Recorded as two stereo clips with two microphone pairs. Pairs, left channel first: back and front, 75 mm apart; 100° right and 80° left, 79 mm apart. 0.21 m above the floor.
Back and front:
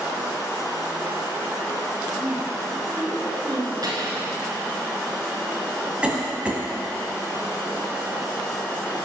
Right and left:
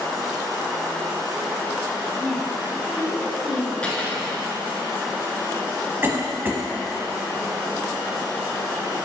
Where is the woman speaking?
5° right, 1.3 m; by 3.7 s 10° right, 2.0 m.